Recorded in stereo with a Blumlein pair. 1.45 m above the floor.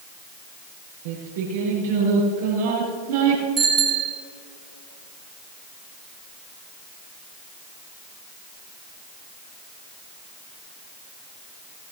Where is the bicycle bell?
30° right, 4.5 m.